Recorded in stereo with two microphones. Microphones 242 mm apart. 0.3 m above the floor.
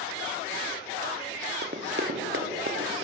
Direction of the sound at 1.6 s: 40° right (ahead or behind).